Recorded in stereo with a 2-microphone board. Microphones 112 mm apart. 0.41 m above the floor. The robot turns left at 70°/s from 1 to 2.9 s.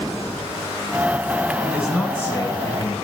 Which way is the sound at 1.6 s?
155° right.